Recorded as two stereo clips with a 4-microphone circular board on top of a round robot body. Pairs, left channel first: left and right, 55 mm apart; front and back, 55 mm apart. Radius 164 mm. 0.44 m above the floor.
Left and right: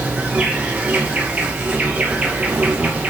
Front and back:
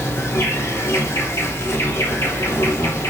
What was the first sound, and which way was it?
An insect, 30° right.